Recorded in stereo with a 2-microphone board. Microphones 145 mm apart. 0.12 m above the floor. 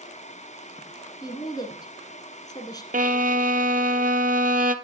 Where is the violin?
75° right (ahead or behind), 0.6 m.